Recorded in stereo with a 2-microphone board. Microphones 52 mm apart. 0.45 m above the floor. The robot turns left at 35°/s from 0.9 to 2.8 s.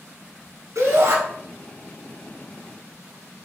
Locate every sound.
0.8 s a shout: 75° right (ahead or behind), 3.5 m; by 1.2 s 65° right (ahead or behind), 3.5 m